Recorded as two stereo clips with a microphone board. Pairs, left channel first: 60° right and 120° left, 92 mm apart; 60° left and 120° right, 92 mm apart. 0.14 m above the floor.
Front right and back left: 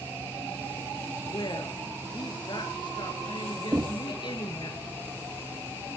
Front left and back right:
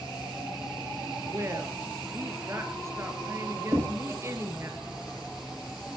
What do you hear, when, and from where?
1.3 s a woman speaking: 70° right, 2.5 m
3.7 s knocking: straight behind, 2.5 m